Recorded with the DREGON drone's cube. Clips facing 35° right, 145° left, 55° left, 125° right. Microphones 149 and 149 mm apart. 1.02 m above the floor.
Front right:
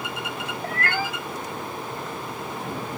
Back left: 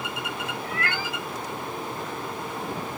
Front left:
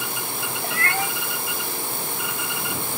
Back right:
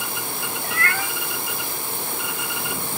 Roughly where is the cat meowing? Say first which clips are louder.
Front right 6 dB, front left 2 dB; ahead.